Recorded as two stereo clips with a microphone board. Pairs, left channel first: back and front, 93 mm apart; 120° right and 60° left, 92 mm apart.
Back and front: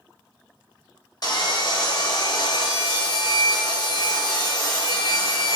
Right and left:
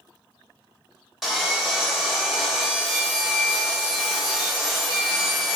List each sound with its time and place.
1.2 s sawing: 150° left, 0.9 m